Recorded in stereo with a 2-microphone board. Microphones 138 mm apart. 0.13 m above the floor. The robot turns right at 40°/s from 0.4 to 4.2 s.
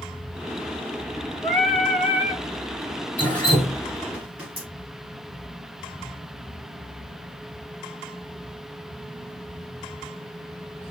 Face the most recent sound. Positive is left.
turn(degrees=-10)  # may be behind; listen again after turning